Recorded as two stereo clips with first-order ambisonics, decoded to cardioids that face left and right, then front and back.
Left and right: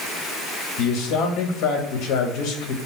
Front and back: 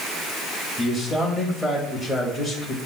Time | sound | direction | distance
0.8 | a man speaking | 85° left | 2 m